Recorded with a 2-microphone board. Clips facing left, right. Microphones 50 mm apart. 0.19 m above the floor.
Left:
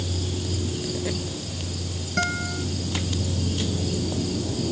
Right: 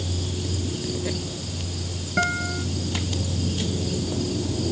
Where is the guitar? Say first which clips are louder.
Right 2 dB; 10° right (ahead or behind).